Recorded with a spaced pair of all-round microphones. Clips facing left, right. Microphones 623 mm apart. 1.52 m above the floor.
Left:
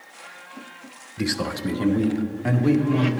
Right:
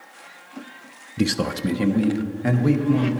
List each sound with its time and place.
1.2 s a man speaking: 60° right (ahead or behind), 0.5 m; by 3.1 s 45° right (ahead or behind), 1.3 m